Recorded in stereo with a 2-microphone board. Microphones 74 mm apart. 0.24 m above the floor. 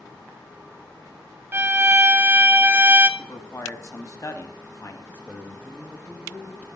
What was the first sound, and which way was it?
A violin, 25° right (ahead or behind).